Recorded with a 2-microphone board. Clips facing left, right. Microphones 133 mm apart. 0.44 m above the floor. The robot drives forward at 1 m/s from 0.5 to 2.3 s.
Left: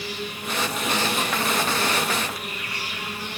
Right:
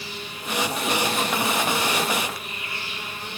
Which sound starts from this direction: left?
An insect, at 0.0 s.